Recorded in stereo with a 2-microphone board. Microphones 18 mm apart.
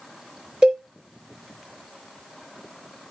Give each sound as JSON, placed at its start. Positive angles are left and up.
{"t": 0.6, "sound": "a cowbell", "side_deg": -60, "distance_m": 3.5}